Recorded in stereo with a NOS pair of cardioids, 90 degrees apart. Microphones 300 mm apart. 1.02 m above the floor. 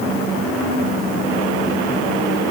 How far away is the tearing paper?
No tearing paper in this recording.